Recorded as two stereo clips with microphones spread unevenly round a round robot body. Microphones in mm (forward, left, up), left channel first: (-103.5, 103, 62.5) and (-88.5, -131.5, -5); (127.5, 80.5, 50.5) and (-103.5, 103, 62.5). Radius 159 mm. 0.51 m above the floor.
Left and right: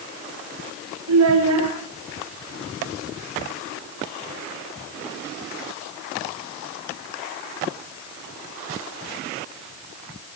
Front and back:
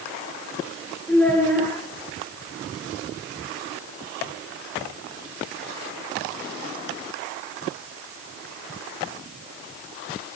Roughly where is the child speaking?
Right.